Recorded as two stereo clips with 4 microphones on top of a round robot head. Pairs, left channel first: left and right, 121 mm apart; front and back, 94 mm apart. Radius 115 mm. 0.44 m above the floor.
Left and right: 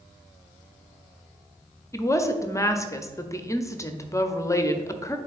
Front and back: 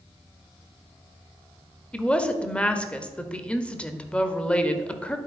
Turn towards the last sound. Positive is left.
turn(degrees=65)